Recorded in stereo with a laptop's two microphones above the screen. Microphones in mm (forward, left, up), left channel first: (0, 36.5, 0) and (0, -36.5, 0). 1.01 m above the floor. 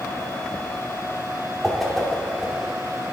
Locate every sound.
1.6 s a whoosh: 5° left (ahead or behind), 1.5 m